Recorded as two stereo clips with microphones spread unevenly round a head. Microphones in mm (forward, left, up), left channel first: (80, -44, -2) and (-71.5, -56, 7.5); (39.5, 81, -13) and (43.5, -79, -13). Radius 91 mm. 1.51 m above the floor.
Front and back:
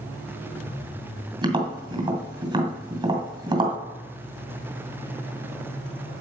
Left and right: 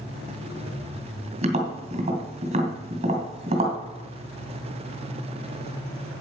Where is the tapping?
125° right, 2 m.